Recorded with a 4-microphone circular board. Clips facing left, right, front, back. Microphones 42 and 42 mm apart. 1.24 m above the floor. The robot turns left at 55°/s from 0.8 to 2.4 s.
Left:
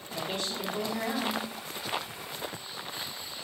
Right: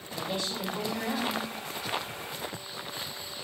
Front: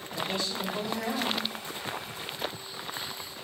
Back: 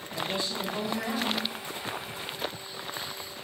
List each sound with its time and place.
0.1 s a woman speaking: 110° left, 3.5 m; by 1.4 s 80° left, 3.5 m